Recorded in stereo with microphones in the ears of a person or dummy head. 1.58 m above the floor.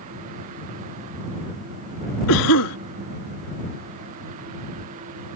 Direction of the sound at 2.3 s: 75° left (ahead or behind).